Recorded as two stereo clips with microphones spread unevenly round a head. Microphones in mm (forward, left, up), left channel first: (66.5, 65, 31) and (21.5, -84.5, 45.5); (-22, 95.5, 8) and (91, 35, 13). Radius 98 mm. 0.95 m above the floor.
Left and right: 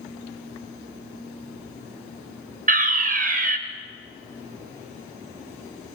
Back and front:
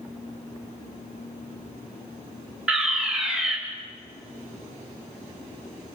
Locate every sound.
2.7 s a fire alarm: 110° right, 2.0 m